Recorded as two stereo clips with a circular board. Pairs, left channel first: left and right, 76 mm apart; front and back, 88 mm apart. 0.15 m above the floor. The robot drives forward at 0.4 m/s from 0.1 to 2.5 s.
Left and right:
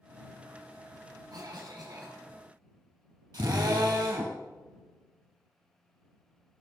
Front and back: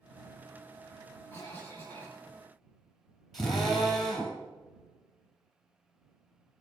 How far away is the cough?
About 4.5 m.